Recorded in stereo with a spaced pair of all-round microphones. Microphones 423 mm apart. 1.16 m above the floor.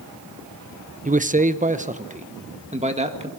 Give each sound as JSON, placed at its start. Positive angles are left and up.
{"t": 1.1, "sound": "a man speaking", "side_deg": -20, "distance_m": 0.7}